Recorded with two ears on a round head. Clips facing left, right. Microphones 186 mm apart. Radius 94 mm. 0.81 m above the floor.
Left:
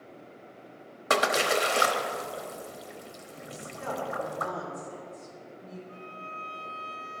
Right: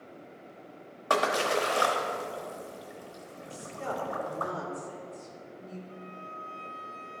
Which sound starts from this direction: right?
A woman speaking, at 3.5 s.